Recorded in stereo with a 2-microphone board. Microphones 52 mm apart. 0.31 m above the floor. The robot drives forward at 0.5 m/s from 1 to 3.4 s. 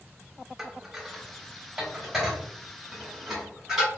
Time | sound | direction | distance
0.6 | dishes clattering | 5° right (ahead or behind) | 0.6 m